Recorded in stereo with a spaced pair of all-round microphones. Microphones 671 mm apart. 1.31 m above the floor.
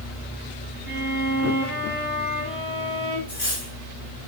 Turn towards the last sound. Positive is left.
turn(degrees=50)  # may be behind; listen again after turning